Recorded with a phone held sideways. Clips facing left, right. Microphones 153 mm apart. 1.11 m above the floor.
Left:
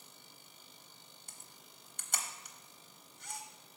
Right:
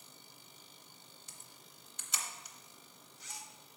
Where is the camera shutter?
50° left (ahead or behind), 0.8 m.